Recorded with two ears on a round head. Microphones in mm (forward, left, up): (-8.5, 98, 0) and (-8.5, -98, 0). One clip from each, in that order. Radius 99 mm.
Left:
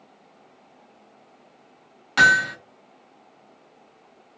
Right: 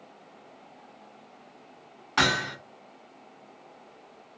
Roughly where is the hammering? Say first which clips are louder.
Left 8 dB; left.